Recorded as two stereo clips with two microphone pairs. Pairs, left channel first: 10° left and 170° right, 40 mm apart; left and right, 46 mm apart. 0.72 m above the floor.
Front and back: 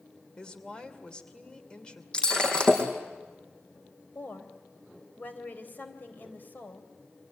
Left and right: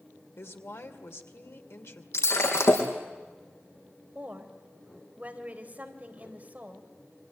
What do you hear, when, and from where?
0.4 s a woman speaking: 75° left, 2.5 m
2.1 s breaking glass: 75° left, 4.5 m
4.2 s a woman speaking: 30° right, 3.5 m